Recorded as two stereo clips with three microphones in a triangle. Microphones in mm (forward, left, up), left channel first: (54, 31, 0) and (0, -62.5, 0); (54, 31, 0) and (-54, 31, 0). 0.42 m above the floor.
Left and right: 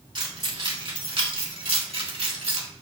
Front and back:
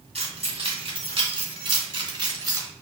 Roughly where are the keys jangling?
Behind right.